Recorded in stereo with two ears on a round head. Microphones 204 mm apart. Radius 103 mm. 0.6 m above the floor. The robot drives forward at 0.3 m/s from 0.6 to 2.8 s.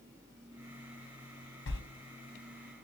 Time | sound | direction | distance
1.7 | a sliding door | 55° left (ahead or behind) | 0.8 m